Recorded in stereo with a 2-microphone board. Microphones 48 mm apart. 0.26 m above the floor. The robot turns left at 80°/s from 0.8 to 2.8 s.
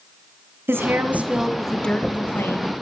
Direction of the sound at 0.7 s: 115° right.